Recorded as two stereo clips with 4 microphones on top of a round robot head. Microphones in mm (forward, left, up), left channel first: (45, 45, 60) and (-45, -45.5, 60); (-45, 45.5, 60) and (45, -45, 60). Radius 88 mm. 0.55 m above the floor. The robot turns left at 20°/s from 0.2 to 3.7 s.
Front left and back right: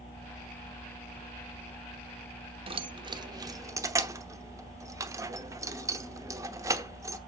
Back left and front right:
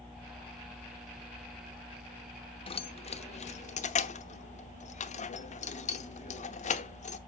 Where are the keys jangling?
Straight behind, 0.9 m; by 7.2 s 160° left, 0.9 m.